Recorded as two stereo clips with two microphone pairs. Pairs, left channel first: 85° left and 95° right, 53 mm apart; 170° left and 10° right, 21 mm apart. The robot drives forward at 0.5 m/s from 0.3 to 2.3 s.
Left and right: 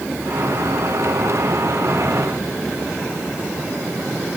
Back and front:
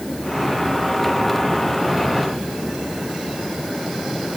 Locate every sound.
Only background noise.